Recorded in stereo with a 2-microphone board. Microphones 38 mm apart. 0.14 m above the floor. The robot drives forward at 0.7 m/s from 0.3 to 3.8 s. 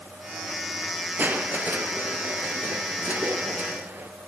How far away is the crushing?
About 2.0 m.